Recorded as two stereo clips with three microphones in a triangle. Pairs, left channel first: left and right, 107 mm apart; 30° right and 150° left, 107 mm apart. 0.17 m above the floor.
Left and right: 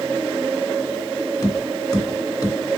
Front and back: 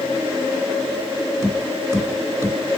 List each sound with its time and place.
1.4 s tapping: 110° left, 2.0 m